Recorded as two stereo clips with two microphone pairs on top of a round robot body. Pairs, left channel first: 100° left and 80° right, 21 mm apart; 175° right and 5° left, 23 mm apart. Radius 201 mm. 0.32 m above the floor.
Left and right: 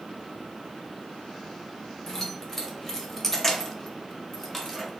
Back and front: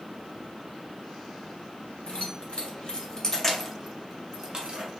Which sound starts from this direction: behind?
Keys jangling, at 2.1 s.